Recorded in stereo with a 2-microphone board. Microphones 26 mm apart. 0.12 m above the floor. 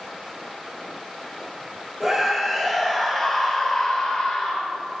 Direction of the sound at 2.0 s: 15° right (ahead or behind).